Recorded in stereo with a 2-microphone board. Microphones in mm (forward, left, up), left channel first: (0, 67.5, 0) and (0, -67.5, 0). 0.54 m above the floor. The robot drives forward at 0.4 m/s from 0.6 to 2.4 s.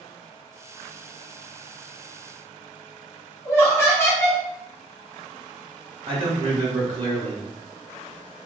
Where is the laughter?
20° left (ahead or behind), 1.3 m.